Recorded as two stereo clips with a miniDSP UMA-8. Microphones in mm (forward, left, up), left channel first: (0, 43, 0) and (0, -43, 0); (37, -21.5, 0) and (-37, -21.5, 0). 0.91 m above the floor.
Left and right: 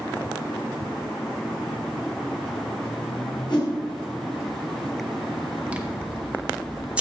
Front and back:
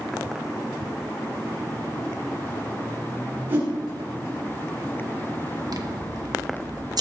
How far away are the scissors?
About 1.2 m.